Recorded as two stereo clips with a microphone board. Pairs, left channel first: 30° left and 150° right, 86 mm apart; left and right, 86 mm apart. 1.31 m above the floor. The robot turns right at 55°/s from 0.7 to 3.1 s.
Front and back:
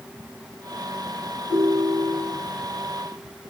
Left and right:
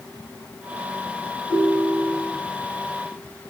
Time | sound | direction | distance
1.5 | a ringtone | 45° left | 5.5 m